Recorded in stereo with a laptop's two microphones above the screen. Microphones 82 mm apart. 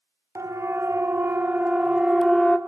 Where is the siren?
40° right (ahead or behind), 3 m; by 2.6 s 10° left (ahead or behind), 1.9 m.